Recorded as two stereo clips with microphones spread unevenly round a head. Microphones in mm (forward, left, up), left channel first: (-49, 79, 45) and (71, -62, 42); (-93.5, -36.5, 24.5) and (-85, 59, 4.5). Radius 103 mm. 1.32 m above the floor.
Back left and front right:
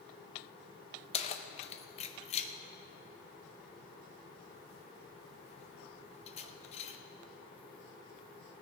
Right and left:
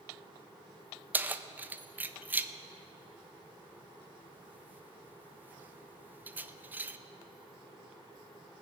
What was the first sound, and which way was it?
Keys jangling, 165° left.